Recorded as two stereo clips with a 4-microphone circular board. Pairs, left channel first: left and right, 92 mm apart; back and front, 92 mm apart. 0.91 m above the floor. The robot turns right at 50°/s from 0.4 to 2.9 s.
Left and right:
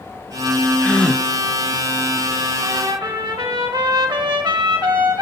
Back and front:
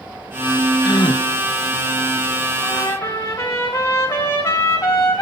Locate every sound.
0.8 s a gasp: 155° left, 0.6 m; by 1.2 s straight behind, 0.6 m
2.6 s a trumpet: 135° right, 2 m; by 5.2 s 125° right, 2 m